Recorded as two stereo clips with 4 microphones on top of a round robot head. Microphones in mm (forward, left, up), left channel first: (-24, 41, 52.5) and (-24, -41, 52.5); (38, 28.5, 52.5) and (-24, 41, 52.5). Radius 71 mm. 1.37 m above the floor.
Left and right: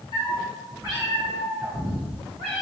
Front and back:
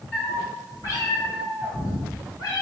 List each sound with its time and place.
0.1 s a cat meowing: 55° left, 1.3 m; by 2.6 s 50° right, 3 m